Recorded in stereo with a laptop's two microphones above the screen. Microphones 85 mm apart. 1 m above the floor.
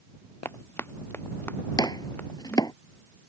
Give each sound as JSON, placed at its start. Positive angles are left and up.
{"t": 0.5, "sound": "running footsteps", "side_deg": 30}
{"t": 1.8, "sound": "chopping", "side_deg": 50}